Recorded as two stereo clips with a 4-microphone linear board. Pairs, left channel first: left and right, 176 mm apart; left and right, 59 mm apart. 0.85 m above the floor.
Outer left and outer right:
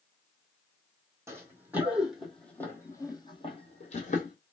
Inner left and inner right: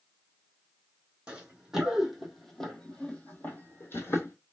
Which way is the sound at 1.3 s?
15° right (ahead or behind).